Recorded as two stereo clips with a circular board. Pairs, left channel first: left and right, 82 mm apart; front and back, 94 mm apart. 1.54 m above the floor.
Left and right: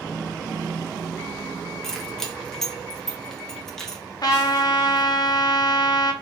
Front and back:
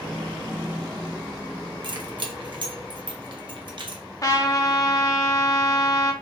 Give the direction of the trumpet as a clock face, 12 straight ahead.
10 o'clock.